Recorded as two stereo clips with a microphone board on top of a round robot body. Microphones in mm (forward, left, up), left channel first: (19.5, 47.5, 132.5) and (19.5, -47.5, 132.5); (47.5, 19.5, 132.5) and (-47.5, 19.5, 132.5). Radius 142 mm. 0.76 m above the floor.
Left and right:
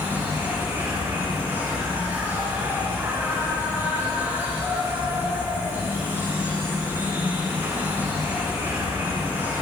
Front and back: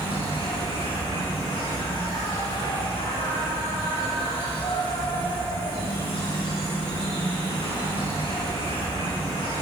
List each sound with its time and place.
0.0 s an insect: 30° right, 8 m